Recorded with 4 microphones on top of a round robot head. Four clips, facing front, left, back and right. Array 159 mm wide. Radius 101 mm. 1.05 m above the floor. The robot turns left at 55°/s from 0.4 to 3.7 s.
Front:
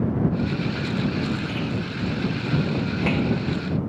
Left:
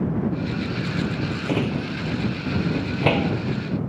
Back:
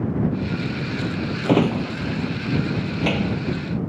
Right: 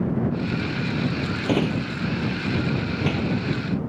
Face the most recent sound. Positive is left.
turn(degrees=70)